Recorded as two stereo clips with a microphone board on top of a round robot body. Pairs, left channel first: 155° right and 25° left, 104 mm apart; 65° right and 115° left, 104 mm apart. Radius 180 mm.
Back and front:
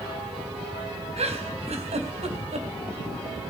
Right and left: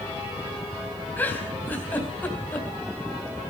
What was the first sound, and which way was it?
A giggle, 5° left.